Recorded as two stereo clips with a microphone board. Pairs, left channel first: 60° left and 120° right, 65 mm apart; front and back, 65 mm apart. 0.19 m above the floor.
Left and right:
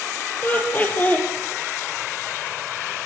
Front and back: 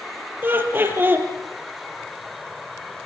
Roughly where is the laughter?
Behind left.